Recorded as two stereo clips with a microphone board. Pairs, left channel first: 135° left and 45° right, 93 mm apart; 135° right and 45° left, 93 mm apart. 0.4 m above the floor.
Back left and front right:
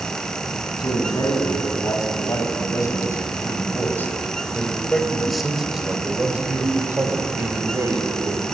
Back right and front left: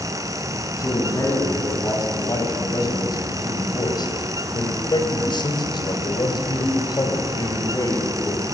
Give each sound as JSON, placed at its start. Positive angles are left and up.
{"t": 0.8, "sound": "a man speaking", "azimuth_deg": 175, "distance_m": 4.0}